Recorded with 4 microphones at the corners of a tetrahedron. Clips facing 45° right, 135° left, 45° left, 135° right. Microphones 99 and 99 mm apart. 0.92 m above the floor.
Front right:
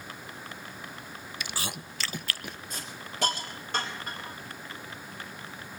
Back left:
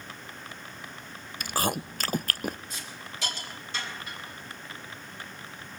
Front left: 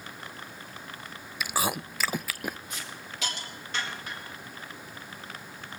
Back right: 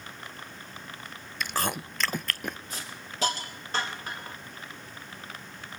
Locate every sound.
1.4 s chewing: 125° left, 0.5 m
2.7 s a hiss: 85° right, 4.5 m